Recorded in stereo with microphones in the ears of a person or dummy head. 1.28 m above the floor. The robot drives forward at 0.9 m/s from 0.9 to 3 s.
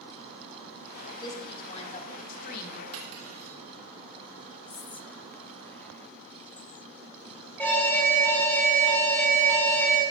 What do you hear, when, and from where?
1.2 s a woman speaking: 35° left (ahead or behind), 2.5 m; by 2.8 s 65° left (ahead or behind), 1.5 m
2.9 s cutlery clinking: 80° right, 2 m
4.7 s whispering: 10° left (ahead or behind), 0.6 m
7.6 s an alarm: 5° left (ahead or behind), 4 m